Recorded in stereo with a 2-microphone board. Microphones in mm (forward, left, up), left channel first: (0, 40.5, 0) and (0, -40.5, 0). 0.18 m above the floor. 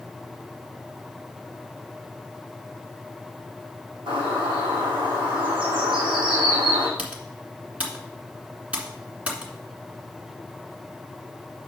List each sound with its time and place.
4.1 s a bird: 80° right, 4 m
7.0 s typing on a keyboard: 15° right (ahead or behind), 1.9 m